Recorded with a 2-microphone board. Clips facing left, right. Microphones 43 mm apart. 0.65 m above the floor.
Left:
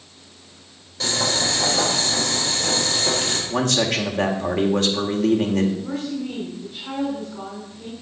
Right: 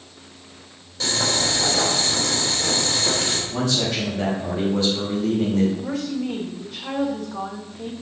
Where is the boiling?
5° left (ahead or behind), 3 m.